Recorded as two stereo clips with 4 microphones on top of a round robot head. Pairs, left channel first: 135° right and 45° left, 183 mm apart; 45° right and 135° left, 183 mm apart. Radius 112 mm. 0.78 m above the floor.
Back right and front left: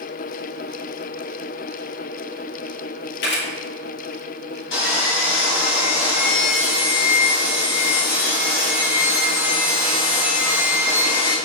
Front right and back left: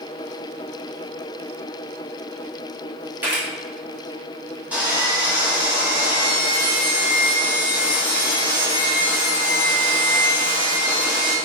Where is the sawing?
140° right, 1.3 m.